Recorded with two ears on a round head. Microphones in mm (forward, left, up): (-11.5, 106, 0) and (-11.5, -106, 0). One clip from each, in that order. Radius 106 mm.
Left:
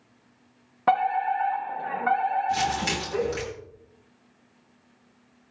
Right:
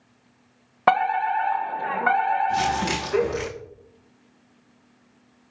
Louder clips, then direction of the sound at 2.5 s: Right 2 dB; 20° left (ahead or behind).